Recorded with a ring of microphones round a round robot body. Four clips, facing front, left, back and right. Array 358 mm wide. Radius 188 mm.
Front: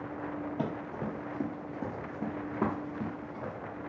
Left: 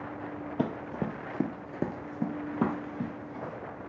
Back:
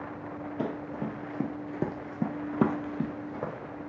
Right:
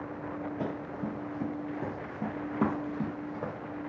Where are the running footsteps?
80° left, 0.9 m; by 3.5 s 165° right, 1.1 m.